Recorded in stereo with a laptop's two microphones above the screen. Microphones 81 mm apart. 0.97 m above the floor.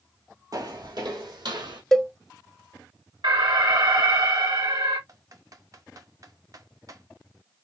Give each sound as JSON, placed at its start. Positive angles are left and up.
{"t": 0.5, "sound": "footsteps", "side_deg": -45, "distance_m": 1.4}
{"t": 1.9, "sound": "a cowbell", "side_deg": 5, "distance_m": 0.6}
{"t": 3.2, "sound": "an alarm", "side_deg": -80, "distance_m": 1.9}
{"t": 5.1, "sound": "typing on a keyboard", "side_deg": -45, "distance_m": 0.6}